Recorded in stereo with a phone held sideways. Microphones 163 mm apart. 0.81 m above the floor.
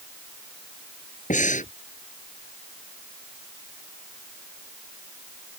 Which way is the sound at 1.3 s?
50° left (ahead or behind).